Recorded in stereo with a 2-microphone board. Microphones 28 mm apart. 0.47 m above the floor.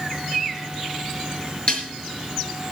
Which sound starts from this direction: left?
Dishes clattering, at 1.7 s.